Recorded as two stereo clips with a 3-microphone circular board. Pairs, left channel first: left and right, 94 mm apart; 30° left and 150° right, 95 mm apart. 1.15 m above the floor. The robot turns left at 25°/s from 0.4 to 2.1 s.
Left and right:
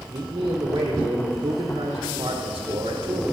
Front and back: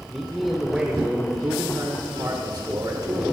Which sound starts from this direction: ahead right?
A man speaking, at 0.1 s.